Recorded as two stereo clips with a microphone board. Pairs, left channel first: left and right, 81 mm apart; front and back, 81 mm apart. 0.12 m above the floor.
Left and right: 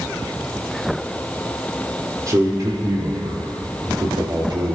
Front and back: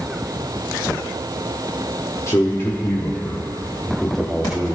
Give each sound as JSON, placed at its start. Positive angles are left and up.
{"t": 2.3, "sound": "a man speaking", "azimuth_deg": -50, "distance_m": 4.5}